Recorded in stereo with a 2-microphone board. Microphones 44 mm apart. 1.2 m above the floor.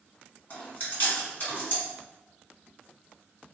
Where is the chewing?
45° left (ahead or behind), 1.9 m.